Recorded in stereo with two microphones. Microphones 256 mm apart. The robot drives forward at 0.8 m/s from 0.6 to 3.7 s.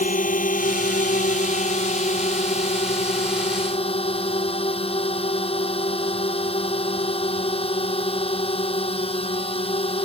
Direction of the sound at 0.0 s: 30° left (ahead or behind).